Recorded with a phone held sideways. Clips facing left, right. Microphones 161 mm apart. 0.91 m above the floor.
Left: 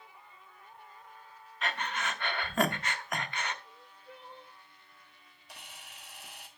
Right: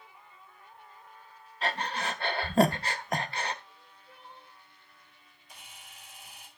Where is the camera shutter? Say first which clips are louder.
Left 2 dB; 70° left (ahead or behind), 1.7 m.